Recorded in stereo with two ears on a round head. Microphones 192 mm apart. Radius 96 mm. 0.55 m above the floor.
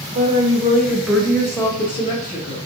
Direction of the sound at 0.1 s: 35° right (ahead or behind).